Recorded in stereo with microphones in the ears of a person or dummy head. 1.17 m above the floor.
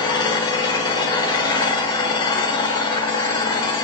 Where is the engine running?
30° left (ahead or behind), 1.2 m.